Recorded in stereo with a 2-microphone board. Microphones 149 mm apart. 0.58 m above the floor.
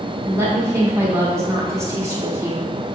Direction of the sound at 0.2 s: 20° right (ahead or behind).